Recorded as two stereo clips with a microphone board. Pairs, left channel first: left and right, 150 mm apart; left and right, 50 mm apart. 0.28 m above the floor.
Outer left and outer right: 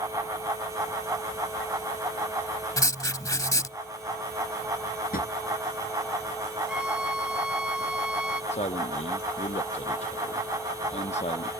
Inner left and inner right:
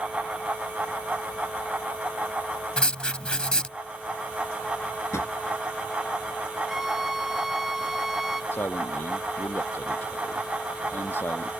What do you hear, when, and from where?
2.8 s writing: 25° left (ahead or behind)
5.1 s a drawer: 75° left (ahead or behind)
6.7 s a violin: 5° right (ahead or behind)
8.5 s a man speaking: 45° left (ahead or behind)